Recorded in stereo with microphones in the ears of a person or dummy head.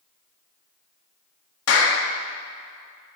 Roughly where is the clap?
Left.